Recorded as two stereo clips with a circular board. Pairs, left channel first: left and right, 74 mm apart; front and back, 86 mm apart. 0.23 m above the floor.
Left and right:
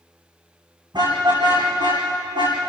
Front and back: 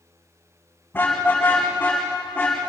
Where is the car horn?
70° right, 9.5 m; by 2.6 s 80° right, 9.5 m.